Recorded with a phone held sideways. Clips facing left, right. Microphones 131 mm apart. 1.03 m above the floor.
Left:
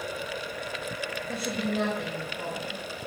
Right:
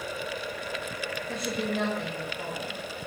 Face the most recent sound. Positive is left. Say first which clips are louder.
# even
turn(degrees=5)  # may be behind; listen again after turning